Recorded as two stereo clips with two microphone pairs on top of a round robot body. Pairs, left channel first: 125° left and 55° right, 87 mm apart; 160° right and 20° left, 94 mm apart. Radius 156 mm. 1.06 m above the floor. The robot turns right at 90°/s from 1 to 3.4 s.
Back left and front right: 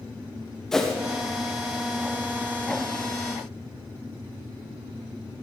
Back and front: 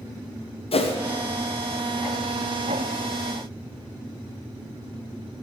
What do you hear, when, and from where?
0.7 s a whoosh: 150° right, 1.1 m